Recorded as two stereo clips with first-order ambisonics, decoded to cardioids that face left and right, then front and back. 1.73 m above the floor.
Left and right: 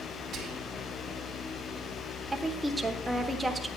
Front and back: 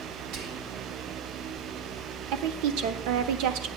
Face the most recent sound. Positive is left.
turn(degrees=-175)